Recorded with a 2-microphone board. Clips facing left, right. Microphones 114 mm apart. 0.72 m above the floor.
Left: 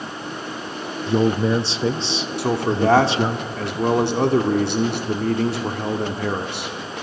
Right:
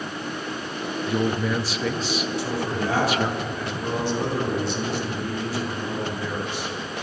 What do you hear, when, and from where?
1.1 s a man speaking: 25° left (ahead or behind), 0.5 m
2.4 s a man speaking: 65° left (ahead or behind), 1.7 m